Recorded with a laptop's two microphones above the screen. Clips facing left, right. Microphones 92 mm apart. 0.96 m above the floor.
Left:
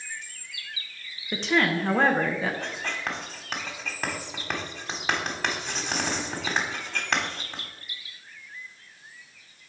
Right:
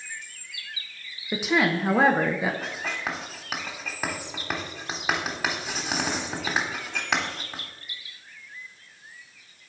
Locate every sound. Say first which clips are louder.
1.3 s a woman speaking: right 1 dB; 10° right (ahead or behind), 0.7 m
2.6 s writing: right 1 dB; 10° right (ahead or behind), 1.1 m